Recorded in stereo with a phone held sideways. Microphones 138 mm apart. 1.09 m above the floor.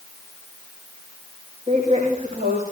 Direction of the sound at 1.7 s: 60° right (ahead or behind).